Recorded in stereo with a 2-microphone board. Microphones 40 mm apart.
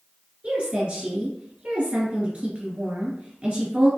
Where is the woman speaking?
35° right (ahead or behind), 1.3 m.